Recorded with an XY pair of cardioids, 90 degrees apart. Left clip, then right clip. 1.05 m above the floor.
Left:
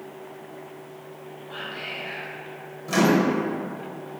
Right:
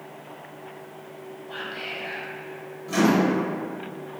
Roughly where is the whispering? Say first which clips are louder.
Even; ahead right.